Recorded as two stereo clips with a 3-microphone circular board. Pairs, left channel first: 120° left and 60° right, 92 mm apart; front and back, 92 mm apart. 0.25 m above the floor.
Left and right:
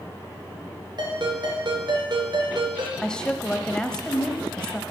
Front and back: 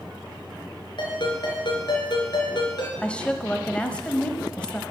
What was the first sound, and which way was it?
A ringtone, 25° right.